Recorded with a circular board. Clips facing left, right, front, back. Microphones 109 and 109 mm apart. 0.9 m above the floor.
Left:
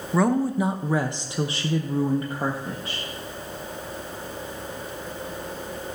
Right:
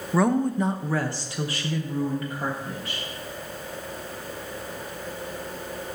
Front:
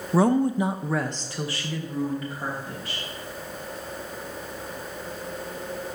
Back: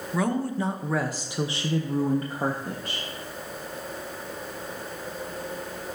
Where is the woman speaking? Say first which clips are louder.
Even, front 6 dB; 5° right, 0.8 m; by 3.0 s 145° left, 1.5 m.